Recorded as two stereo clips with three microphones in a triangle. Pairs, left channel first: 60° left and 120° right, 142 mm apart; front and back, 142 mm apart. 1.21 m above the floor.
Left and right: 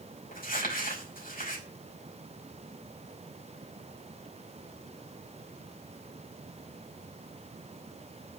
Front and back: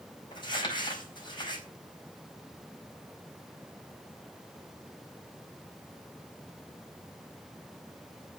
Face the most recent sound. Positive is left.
turn(degrees=55)